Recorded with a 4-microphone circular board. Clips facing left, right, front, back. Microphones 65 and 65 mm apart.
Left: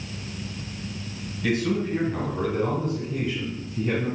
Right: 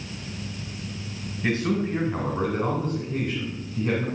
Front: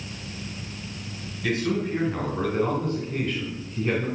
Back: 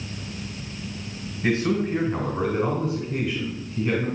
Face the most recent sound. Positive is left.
turn(degrees=-75)